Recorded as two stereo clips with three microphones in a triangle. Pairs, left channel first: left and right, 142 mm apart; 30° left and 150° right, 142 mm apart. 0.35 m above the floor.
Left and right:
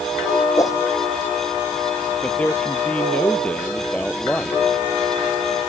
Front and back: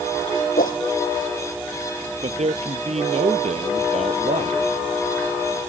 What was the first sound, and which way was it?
A whoosh, 25° left.